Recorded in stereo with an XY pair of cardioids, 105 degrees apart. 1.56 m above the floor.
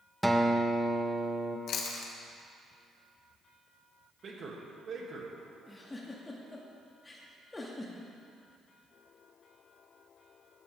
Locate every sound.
0.2 s a guitar: 5° right, 1.3 m
1.7 s chewing: 65° left, 1.8 m
4.2 s a man speaking: 45° right, 2.5 m
5.7 s a giggle: 20° left, 2 m